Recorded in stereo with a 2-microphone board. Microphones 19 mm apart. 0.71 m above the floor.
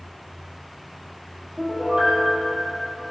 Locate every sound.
1.6 s a piano: 70° right (ahead or behind), 4.5 m